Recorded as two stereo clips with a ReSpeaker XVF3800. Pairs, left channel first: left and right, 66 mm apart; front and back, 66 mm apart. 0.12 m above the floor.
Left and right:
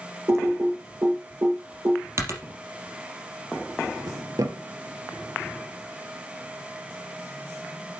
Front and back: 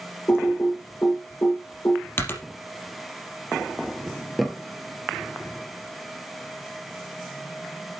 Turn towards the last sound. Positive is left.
turn(degrees=-90)